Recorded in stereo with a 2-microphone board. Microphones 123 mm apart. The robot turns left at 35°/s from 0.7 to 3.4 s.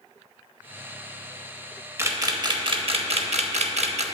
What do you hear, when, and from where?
2.0 s a camera shutter: 20° right (ahead or behind), 0.6 m; by 4.0 s 60° right (ahead or behind), 0.6 m